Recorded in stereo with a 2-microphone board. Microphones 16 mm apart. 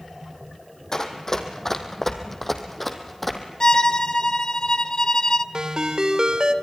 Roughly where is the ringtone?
Right.